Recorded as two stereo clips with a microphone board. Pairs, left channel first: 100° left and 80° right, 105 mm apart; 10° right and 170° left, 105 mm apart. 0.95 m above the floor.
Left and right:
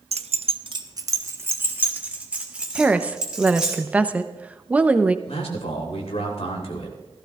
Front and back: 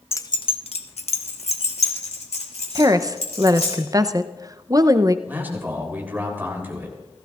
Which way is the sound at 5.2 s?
100° left.